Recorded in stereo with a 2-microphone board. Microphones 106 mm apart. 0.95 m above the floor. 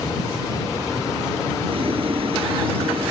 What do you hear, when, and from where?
1.7 s boiling: 55° right (ahead or behind)